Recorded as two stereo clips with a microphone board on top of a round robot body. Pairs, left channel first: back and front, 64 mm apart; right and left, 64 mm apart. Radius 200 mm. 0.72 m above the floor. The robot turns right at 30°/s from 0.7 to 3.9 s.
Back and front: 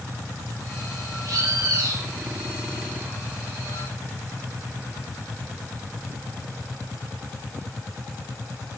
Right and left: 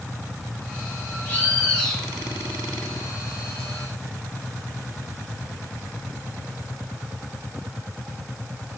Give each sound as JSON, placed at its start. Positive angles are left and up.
{"t": 1.2, "sound": "a bird", "azimuth_deg": -25, "distance_m": 5.0}